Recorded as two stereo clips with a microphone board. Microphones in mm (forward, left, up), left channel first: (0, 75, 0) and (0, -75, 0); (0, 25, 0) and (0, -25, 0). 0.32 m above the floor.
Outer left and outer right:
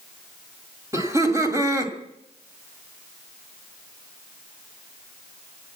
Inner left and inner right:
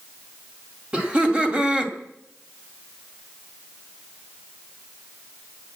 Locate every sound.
0.9 s laughter: 20° right (ahead or behind), 1.9 m